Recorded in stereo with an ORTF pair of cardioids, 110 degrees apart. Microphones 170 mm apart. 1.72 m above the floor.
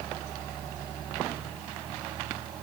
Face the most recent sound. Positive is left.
No sound to turn to.